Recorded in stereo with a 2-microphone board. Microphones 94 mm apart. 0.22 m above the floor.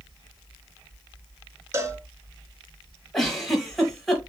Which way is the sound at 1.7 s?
30° right (ahead or behind).